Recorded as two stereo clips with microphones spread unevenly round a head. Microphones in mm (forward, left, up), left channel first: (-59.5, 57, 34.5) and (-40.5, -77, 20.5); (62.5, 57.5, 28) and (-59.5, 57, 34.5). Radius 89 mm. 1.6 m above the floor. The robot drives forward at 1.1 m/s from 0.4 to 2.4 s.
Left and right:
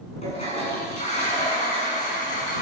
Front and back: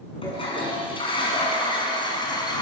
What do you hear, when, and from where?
0.2 s a toilet flushing: 40° left, 9.5 m; by 2.6 s 50° left, 8 m